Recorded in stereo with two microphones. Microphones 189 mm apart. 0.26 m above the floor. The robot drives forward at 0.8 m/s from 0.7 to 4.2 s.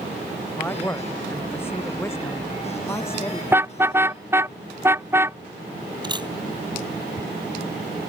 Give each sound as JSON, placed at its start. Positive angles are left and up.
{"t": 0.6, "sound": "a man speaking", "side_deg": 10}
{"t": 3.5, "sound": "a car horn", "side_deg": -10}
{"t": 6.0, "sound": "a camera shutter", "side_deg": -25}